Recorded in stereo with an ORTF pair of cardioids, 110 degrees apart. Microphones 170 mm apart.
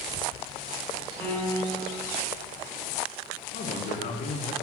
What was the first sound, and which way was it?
A piano, 15° left.